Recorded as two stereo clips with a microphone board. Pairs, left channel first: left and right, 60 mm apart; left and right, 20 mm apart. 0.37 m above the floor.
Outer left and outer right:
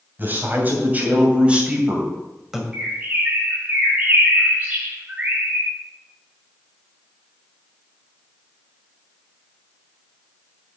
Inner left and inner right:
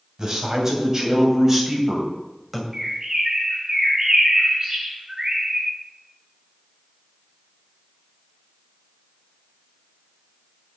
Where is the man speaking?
35° right (ahead or behind), 2.5 m; by 2.6 s 5° right (ahead or behind), 1.9 m.